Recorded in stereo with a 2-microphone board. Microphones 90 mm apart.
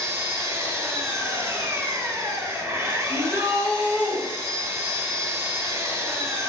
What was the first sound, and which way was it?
An engine running, 30° right (ahead or behind).